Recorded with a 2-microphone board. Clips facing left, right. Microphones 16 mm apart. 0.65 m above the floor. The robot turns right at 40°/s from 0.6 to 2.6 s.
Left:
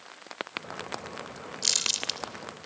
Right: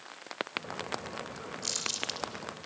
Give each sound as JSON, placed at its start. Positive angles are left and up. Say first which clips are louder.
{"t": 1.6, "sound": "crumpling", "louder": "left 7 dB", "side_deg": 40, "distance_m": 2.5}